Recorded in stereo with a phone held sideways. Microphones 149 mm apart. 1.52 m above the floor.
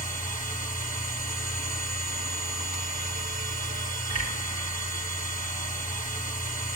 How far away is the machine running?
About 3.5 m.